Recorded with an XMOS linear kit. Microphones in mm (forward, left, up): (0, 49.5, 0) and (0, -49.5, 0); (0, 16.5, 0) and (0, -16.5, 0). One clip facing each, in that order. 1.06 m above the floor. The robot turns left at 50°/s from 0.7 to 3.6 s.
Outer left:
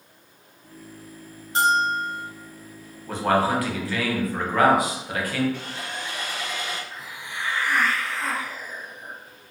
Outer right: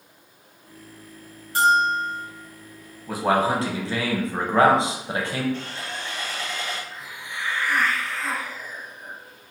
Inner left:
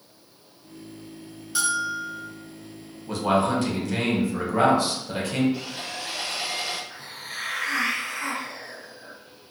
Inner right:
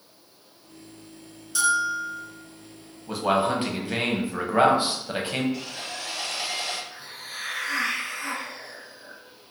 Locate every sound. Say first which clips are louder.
1.6 s a bell: outer right 2 dB, inner right 3 dB; 160° left, 1.0 m; by 2.2 s 125° left, 1.0 m
3.1 s a man speaking: even, inner left 1 dB; 5° right (ahead or behind), 0.7 m; by 5.4 s 25° right (ahead or behind), 0.7 m
5.5 s sawing: outer right 1 dB, inner left 1 dB; 15° left (ahead or behind), 0.8 m
6.9 s a hiss: even, inner left 2 dB; 75° left (ahead or behind), 1.4 m